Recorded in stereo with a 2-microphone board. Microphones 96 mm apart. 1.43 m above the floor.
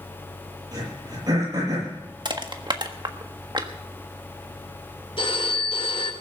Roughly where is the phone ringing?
Left.